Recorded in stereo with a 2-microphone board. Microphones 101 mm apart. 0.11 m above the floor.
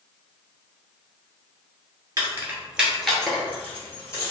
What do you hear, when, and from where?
2.2 s keys jangling: 30° right (ahead or behind), 1.0 m; by 4.3 s 30° left (ahead or behind), 1.6 m